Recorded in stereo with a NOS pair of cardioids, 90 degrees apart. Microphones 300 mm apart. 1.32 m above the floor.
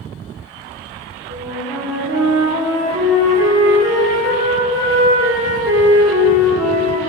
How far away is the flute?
About 1.4 m.